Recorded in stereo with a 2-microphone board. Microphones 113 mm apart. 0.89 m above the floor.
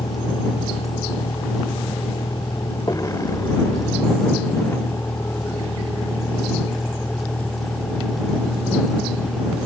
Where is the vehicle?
45° left (ahead or behind); by 9.7 s centre (ahead or behind).